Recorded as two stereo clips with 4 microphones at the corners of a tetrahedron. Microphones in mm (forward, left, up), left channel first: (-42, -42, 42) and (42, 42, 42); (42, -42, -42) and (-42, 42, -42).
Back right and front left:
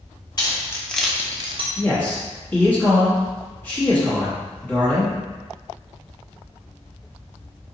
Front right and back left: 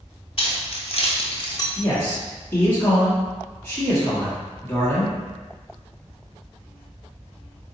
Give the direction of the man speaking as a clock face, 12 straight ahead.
3 o'clock.